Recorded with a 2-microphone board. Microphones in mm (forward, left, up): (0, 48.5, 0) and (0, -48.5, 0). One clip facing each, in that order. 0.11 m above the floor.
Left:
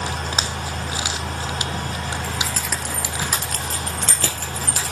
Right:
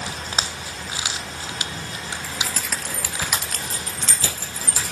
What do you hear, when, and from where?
2.2 s keys jangling: 10° right (ahead or behind), 1.9 m; by 4.9 s 70° left (ahead or behind), 3 m